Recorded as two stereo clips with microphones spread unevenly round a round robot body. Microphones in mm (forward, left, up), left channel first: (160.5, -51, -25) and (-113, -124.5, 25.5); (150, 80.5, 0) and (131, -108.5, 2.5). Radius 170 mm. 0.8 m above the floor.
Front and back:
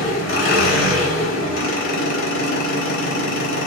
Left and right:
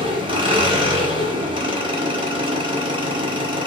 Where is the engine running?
30° right, 1.2 m.